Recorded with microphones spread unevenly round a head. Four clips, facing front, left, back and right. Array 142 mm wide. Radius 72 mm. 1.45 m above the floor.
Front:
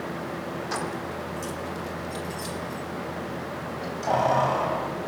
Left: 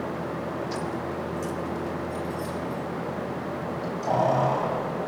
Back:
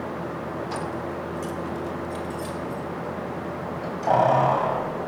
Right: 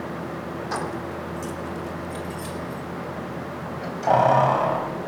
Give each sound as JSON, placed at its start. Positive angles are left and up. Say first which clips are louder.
{"t": 0.7, "sound": "keys jangling", "louder": "right 1 dB, back 1 dB", "azimuth_deg": -80, "distance_m": 3.5}